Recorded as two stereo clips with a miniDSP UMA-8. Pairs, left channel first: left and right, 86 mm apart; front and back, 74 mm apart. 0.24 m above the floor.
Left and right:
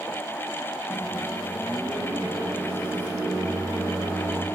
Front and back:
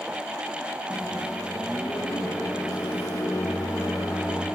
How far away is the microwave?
About 7.5 m.